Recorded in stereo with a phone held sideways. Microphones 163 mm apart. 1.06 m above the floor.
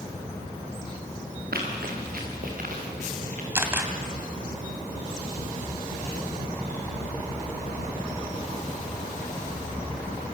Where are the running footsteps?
75° right (ahead or behind), 6.5 m; by 3.5 s 55° right (ahead or behind), 7 m.